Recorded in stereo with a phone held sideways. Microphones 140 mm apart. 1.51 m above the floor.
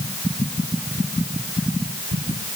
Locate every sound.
Only background noise.